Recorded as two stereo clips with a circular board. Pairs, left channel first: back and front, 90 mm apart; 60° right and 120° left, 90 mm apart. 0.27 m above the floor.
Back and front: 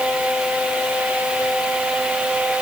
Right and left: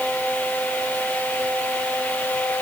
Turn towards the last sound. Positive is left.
No sound to turn to.